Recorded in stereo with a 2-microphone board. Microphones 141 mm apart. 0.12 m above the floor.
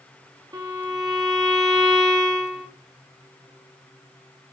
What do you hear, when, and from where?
0.5 s a violin: 25° right (ahead or behind), 3.5 m